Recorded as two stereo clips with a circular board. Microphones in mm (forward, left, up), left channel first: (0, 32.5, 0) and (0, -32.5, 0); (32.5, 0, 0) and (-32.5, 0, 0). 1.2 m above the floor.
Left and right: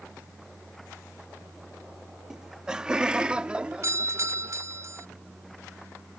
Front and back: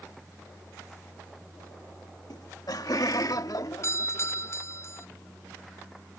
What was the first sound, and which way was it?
Laughter, 10° right.